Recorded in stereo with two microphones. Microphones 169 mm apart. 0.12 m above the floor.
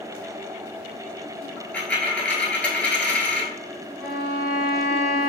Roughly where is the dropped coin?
Centre.